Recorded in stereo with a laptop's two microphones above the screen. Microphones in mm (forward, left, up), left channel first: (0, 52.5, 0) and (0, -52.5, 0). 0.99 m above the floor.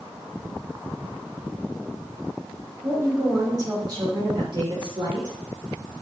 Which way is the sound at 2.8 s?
30° right (ahead or behind).